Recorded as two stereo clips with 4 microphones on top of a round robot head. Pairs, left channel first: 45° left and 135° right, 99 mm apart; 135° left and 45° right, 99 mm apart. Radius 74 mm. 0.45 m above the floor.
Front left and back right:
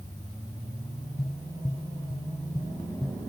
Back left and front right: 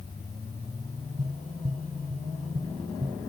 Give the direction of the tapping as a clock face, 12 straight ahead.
1 o'clock.